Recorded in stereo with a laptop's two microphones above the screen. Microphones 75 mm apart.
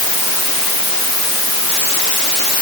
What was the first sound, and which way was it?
Only background noise.